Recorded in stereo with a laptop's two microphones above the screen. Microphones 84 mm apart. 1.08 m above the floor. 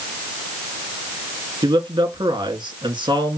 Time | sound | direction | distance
1.6 | a man speaking | 60° right (ahead or behind) | 1.4 m